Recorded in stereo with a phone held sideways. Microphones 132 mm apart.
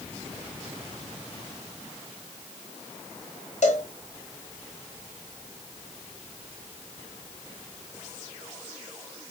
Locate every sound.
3.6 s a cowbell: 70° left (ahead or behind), 1.3 m